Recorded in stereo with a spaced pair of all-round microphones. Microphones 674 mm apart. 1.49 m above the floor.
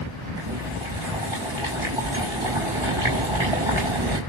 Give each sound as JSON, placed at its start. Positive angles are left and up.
{"t": 0.4, "sound": "boiling", "side_deg": -45, "distance_m": 6.5}